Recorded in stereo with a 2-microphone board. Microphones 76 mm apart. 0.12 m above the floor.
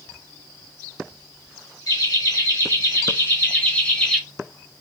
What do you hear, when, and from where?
1.9 s laughter: 55° left (ahead or behind), 2.5 m; by 4.2 s 5° left (ahead or behind), 1.5 m